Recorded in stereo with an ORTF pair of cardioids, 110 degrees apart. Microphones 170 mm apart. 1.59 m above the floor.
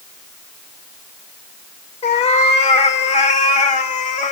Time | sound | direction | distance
2.0 | a cat meowing | 45° left | 3 m